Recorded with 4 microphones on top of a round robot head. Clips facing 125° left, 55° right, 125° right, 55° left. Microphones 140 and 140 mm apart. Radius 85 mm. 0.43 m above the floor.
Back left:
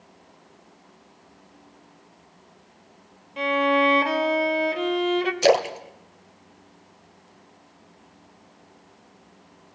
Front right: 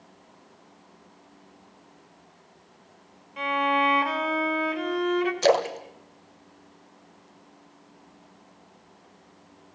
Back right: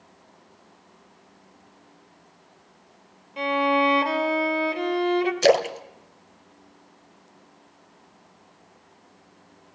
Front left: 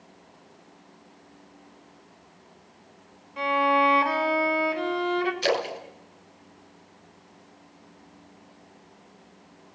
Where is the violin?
175° left, 2.5 m.